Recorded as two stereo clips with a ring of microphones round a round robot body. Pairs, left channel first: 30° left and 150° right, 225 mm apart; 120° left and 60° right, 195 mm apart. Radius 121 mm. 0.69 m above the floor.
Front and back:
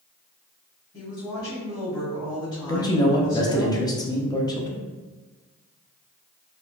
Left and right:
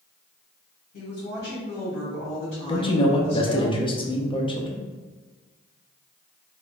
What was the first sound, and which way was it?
A woman speaking, 100° left.